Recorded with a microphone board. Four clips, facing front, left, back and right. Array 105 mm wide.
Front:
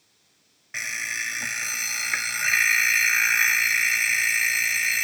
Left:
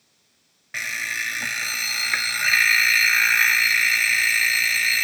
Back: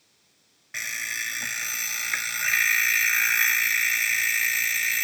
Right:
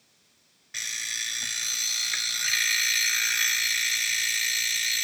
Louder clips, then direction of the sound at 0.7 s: Left 10 dB, front 2 dB; 80° left.